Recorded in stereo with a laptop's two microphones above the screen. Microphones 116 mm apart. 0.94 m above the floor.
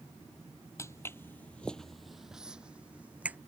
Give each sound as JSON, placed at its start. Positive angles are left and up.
{"t": 0.8, "sound": "footsteps", "side_deg": 25}